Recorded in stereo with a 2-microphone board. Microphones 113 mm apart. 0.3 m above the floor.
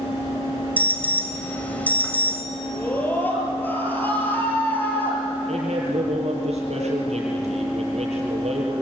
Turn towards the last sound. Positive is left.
turn(degrees=-70)  # may be behind; listen again after turning